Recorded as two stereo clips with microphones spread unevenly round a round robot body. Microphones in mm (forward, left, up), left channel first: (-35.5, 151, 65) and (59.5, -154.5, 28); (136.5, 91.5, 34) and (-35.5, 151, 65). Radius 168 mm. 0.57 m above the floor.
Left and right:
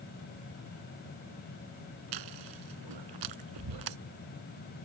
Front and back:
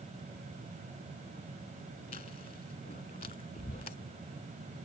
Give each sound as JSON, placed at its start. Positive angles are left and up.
{"t": 2.1, "sound": "chewing", "azimuth_deg": -85}